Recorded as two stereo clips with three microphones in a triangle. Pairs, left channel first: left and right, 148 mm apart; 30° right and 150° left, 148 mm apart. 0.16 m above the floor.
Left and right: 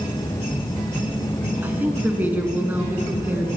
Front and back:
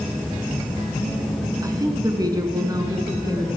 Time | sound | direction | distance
1.6 | a woman speaking | 160° right | 1.7 m